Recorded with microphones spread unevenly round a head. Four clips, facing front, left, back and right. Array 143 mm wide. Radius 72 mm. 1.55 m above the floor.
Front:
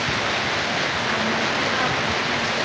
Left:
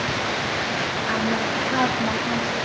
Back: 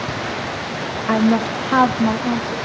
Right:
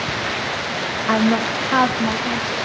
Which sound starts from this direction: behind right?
A woman speaking, at 1.1 s.